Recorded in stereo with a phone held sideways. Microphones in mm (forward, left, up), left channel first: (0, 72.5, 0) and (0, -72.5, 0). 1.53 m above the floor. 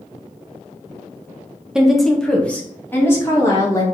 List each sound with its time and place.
1.8 s a woman speaking: 5° right (ahead or behind), 1.0 m; by 3.8 s 20° left (ahead or behind), 2 m